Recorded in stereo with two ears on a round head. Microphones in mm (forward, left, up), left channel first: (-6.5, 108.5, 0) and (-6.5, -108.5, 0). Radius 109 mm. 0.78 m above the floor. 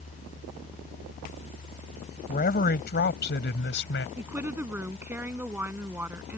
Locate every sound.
2.3 s a man speaking: 40° left (ahead or behind); by 4.1 s 50° left (ahead or behind)
4.2 s a woman speaking: 10° right (ahead or behind)